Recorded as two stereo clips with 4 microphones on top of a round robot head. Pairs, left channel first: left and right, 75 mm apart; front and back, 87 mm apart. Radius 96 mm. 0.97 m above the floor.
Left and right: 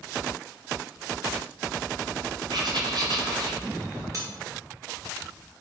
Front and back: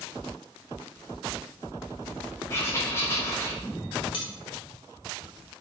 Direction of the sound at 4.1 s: 35° right.